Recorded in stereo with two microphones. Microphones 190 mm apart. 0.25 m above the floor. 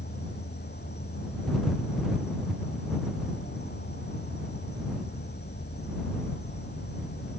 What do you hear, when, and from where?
0.0 s an insect: 60° left (ahead or behind)